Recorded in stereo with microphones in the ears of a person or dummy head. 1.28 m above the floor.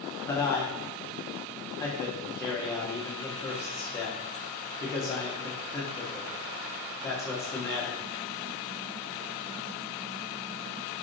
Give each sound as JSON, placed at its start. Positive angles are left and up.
{"t": 0.3, "sound": "a man speaking", "side_deg": 10, "distance_m": 0.7}